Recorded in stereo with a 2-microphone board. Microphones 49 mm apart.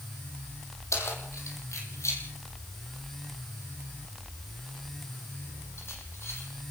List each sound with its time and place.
0.9 s keys jangling: 80° left, 7 m; by 6.5 s 60° left (ahead or behind), 7.5 m